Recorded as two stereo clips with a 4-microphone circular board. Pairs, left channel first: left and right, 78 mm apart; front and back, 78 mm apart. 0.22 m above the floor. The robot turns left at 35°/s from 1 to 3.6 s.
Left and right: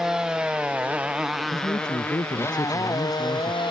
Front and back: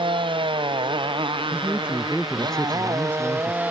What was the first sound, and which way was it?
A motorcycle, 175° right.